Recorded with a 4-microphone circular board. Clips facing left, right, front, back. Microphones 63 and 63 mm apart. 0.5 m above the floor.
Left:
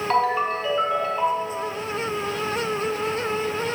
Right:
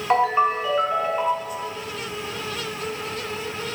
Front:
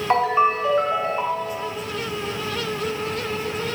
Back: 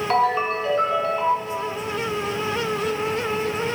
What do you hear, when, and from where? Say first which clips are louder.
0.1 s a ringtone: right 3 dB, front 3 dB; 35° right, 0.7 m